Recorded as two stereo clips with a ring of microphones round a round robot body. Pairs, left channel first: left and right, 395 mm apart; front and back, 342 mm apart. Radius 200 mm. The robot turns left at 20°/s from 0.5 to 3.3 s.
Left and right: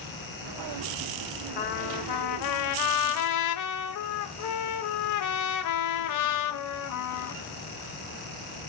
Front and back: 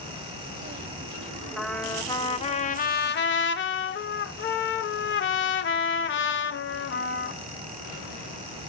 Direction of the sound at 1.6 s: 90° left.